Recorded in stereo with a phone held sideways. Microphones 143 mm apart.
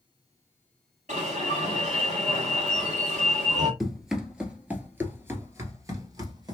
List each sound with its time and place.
1.1 s an alarm: 60° right (ahead or behind), 2.5 m
3.8 s running footsteps: centre (ahead or behind), 1.5 m; by 6.5 s 30° right (ahead or behind), 1.7 m